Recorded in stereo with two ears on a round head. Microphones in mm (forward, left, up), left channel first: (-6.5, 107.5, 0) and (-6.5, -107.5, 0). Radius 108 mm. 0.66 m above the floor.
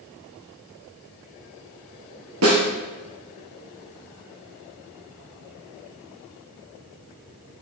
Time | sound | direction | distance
2.4 | a snare drum | 60° right (ahead or behind) | 4 m